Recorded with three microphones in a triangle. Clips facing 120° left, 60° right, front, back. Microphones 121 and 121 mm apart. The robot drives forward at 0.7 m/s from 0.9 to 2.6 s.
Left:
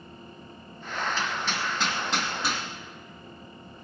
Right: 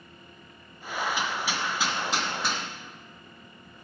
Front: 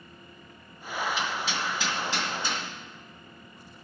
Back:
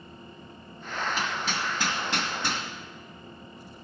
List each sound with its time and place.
1.2 s hammering: 135° right, 1.6 m; by 2.6 s 155° right, 2.5 m